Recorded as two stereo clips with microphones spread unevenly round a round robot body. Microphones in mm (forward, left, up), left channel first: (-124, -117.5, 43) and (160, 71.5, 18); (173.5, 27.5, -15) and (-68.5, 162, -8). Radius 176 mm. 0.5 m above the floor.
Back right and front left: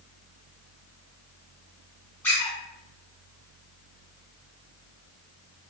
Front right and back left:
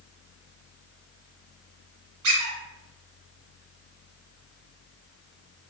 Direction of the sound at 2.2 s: 130° left.